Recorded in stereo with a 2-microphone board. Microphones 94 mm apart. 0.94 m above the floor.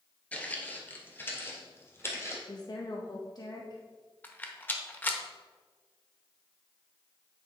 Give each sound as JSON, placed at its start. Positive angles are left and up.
{"t": 0.3, "sound": "footsteps", "side_deg": 15, "distance_m": 1.1}
{"t": 2.5, "sound": "a woman speaking", "side_deg": 45, "distance_m": 0.7}
{"t": 4.2, "sound": "a rattle", "side_deg": 20, "distance_m": 0.9}